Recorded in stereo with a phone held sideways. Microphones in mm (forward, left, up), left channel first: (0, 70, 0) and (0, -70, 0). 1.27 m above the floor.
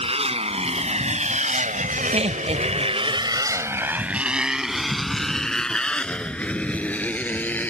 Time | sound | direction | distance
0.0 | a motorcycle | 45° right (ahead or behind) | ?
2.1 | laughter | 50° right (ahead or behind) | ?